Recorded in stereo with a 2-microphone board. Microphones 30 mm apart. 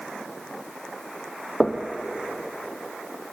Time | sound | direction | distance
1.6 | knocking | 30° left (ahead or behind) | 2.5 m